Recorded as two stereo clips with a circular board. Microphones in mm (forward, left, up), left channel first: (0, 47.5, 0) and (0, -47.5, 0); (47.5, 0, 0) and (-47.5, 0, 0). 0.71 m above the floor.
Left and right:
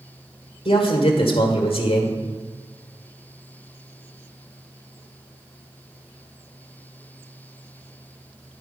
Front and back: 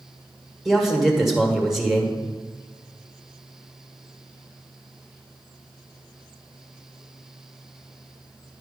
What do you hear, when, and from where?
0.7 s a man speaking: 90° left, 1.8 m